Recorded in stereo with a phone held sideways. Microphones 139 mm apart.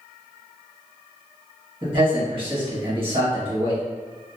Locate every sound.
1.8 s a man speaking: 40° right (ahead or behind), 1.7 m